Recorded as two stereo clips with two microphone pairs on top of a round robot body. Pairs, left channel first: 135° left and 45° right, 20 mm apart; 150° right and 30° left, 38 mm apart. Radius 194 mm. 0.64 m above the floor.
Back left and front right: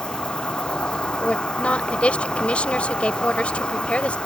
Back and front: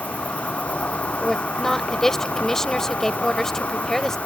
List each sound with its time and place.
0.0 s an insect: 160° left
1.2 s a woman speaking: 130° left